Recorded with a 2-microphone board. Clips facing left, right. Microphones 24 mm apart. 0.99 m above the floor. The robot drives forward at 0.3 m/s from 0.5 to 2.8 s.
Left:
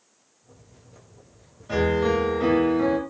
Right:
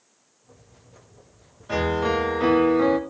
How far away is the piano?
About 0.7 m.